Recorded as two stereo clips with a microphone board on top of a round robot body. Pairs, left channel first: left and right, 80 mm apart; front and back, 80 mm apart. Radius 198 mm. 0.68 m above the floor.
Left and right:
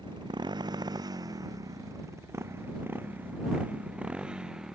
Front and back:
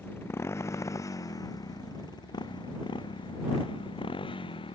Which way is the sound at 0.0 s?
65° right.